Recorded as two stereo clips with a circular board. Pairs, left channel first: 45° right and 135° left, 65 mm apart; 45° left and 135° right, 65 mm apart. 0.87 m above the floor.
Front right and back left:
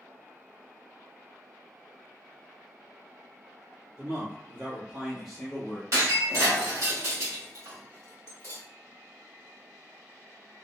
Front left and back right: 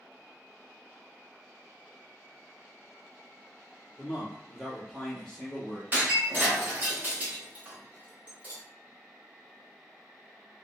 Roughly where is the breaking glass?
Behind.